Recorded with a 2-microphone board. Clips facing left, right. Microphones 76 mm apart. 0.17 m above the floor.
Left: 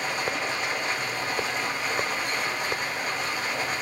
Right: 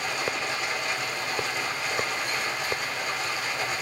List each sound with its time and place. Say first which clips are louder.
0.0 s running water: left 1 dB; 45° left (ahead or behind), 2.5 m